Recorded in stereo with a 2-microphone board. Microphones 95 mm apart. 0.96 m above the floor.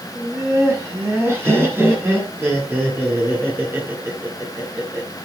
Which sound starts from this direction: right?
Laughter, at 0.1 s.